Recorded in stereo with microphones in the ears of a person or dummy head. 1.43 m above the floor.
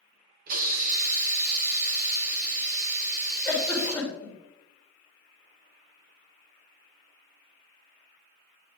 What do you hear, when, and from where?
0.5 s a hiss: 50° right (ahead or behind), 1.6 m
3.5 s a giggle: 10° left (ahead or behind), 3.5 m